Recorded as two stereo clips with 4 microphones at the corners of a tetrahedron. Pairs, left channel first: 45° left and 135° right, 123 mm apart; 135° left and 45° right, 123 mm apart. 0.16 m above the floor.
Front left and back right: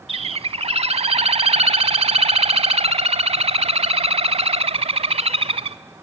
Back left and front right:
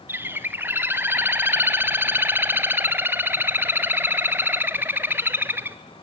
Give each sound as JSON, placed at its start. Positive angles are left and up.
{"t": 0.1, "sound": "a bird", "azimuth_deg": -115, "distance_m": 0.5}